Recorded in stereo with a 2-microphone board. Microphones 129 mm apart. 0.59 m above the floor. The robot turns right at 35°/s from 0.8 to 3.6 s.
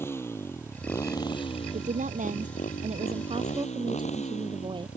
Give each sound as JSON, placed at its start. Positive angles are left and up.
{"t": 0.0, "sound": "a motorcycle", "azimuth_deg": 20}
{"t": 1.7, "sound": "a woman speaking", "azimuth_deg": -105}